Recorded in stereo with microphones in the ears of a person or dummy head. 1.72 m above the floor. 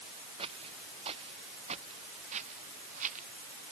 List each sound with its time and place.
0.4 s footsteps: 30° right (ahead or behind); by 3.6 s 40° right (ahead or behind)